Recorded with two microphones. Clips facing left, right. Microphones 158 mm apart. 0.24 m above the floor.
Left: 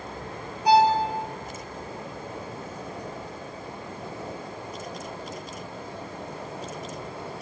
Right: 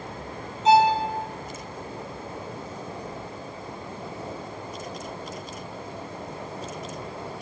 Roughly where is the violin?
Right.